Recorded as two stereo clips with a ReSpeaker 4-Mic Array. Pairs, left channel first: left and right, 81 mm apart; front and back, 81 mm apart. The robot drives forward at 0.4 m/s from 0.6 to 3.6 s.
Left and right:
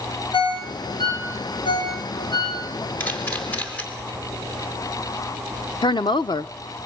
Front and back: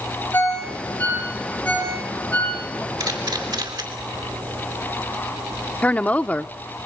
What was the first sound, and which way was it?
A ringtone, 70° left.